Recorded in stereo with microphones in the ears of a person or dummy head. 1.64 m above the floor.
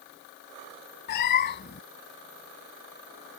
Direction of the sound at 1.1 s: 55° left (ahead or behind).